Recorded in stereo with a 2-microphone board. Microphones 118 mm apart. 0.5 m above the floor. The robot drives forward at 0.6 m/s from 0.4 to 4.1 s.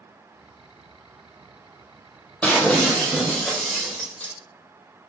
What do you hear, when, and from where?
2.4 s breaking glass: 10° left (ahead or behind), 4.5 m